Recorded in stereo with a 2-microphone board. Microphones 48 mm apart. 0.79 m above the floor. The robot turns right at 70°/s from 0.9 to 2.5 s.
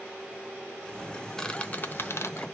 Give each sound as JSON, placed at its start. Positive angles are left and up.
{"t": 1.4, "sound": "a squeak", "side_deg": 10, "distance_m": 0.8}